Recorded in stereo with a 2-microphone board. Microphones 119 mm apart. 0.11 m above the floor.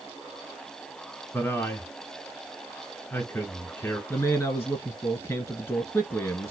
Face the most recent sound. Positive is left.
turn(degrees=20)  # may be behind; listen again after turning